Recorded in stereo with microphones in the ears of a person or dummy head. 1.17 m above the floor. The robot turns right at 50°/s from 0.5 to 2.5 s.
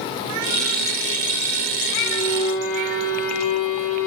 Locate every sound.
2.0 s a violin: 10° right (ahead or behind), 5.5 m; by 4.1 s 35° right (ahead or behind), 5.5 m